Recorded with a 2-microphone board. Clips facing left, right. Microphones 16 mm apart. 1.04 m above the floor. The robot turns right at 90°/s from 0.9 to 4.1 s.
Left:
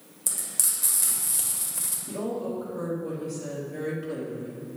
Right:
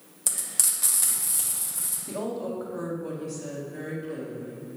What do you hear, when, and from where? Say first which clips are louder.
0.3 s frying: right 1 dB; 20° right, 1.4 m; by 2.0 s 75° left, 1.4 m
2.1 s a woman speaking: even; 135° right, 1.8 m; by 4.6 s 45° left, 1.8 m